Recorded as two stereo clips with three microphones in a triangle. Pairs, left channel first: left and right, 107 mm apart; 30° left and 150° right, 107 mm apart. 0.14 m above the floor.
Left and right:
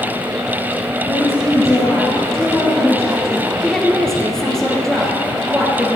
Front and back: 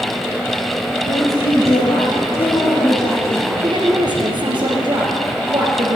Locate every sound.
1.1 s a woman speaking: 30° left, 4.5 m
3.6 s a woman speaking: 175° left, 2 m